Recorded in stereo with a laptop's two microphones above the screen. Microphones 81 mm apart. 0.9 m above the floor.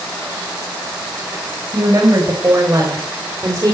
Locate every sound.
1.7 s a woman speaking: 50° right (ahead or behind), 4 m; by 3.8 s 40° right (ahead or behind), 2.5 m